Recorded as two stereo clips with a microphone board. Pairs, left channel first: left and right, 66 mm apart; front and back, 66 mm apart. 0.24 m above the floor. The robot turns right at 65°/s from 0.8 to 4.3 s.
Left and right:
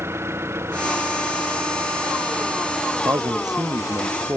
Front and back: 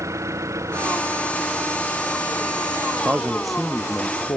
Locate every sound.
0.0 s an engine running: 140° right; by 4.4 s 90° left
3.0 s a man speaking: 120° right; by 4.4 s 35° right